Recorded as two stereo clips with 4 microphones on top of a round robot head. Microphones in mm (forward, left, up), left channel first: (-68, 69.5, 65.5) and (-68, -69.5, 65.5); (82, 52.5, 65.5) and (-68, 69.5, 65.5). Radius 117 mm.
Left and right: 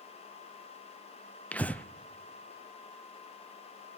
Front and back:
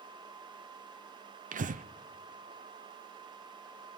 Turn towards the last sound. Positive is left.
turn(degrees=170)